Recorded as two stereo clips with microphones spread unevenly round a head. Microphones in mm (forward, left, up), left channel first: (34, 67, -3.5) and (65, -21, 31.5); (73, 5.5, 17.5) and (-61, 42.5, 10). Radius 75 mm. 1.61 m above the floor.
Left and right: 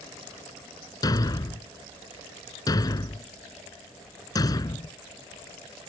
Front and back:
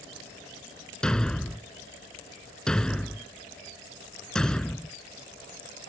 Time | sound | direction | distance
1.0 | a thud | 60° left | ?